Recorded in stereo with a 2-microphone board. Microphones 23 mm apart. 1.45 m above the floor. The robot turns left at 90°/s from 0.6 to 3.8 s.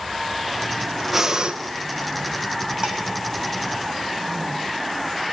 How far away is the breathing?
About 1.7 m.